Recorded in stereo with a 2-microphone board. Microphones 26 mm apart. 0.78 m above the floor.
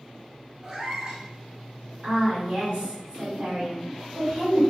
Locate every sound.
0.6 s a cat meowing: 25° right (ahead or behind), 1.0 m
2.0 s a woman speaking: 50° right (ahead or behind), 1.9 m